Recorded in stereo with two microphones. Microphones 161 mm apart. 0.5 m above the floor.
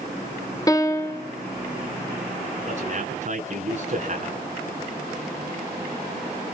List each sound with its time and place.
0.7 s a piano: 20° left (ahead or behind), 1.1 m
2.7 s a man speaking: 45° right (ahead or behind), 5.5 m